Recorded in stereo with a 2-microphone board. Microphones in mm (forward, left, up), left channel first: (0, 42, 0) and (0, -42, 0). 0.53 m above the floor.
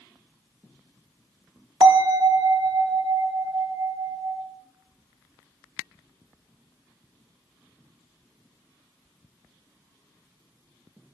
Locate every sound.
1.8 s a bell: 55° right (ahead or behind), 0.8 m